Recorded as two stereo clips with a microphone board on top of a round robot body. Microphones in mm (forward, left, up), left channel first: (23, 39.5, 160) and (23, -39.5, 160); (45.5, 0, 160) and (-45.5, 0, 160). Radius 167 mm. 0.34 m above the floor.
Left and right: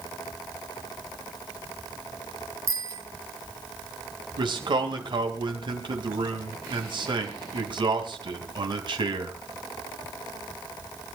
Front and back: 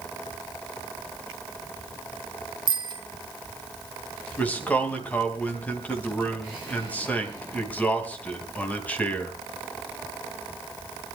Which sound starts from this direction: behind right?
A bicycle bell, at 2.7 s.